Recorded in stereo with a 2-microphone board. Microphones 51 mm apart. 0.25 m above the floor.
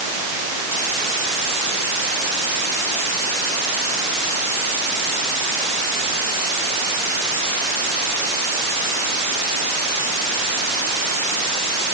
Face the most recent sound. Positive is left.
No sound to turn to.